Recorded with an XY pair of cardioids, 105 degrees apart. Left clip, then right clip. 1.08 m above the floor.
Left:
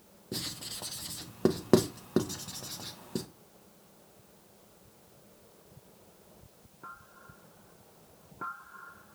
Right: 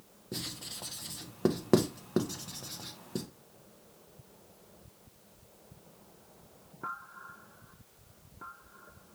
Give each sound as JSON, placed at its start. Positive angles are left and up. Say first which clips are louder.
{"t": 0.3, "sound": "writing", "louder": "left 2 dB", "azimuth_deg": 10, "distance_m": 0.6}